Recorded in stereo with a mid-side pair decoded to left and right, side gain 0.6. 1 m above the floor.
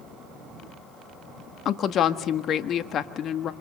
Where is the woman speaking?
50° left, 1.6 m.